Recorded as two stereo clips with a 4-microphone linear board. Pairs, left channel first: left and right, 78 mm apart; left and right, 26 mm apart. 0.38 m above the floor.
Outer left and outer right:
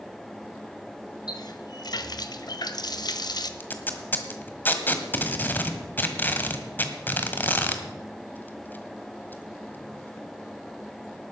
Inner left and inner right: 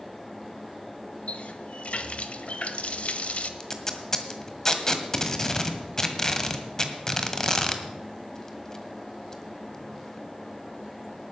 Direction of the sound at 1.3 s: 60° left (ahead or behind).